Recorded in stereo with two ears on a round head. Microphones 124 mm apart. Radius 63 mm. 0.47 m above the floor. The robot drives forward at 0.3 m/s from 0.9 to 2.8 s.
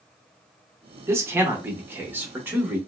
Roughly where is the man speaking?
Centre.